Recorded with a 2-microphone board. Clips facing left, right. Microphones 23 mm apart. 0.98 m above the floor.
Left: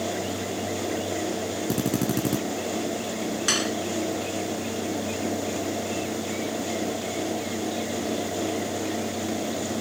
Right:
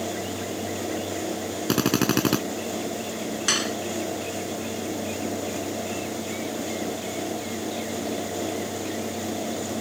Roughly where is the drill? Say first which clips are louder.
Right 5 dB; right.